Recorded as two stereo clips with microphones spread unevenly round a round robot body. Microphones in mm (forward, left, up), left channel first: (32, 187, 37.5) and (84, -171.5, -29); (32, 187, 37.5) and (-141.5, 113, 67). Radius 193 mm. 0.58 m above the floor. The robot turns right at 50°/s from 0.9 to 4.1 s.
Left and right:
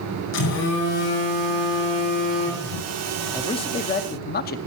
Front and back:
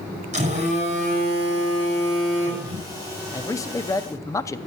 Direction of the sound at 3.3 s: 5° left.